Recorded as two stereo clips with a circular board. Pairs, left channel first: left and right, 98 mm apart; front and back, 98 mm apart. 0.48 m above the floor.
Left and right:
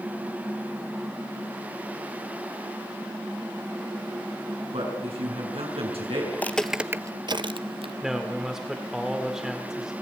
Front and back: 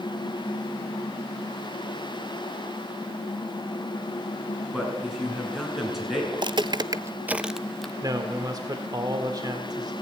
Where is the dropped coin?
I don't hear a dropped coin.